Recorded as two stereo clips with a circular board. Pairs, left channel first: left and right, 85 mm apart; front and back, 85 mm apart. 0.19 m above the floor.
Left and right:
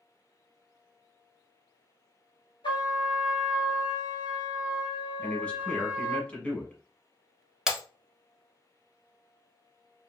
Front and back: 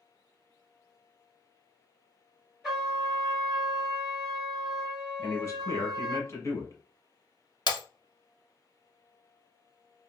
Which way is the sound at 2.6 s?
95° left.